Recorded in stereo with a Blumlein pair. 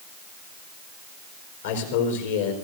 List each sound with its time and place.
1.6 s a man speaking: 65° left, 4.5 m